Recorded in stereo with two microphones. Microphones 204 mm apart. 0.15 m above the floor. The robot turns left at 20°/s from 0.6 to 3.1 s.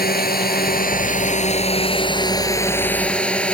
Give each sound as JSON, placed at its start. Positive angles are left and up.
{"t": 0.0, "sound": "a drone", "azimuth_deg": 55}